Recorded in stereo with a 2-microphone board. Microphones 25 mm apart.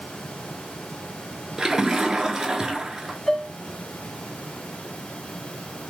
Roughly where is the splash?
Right.